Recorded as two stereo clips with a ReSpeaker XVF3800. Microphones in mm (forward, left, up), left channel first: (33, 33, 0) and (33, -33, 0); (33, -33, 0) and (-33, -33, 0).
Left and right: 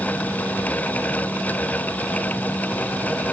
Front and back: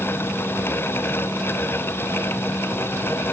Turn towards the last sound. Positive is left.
No sound to turn to.